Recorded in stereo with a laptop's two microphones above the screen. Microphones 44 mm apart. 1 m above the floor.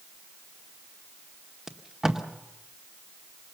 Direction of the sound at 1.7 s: 10° right (ahead or behind).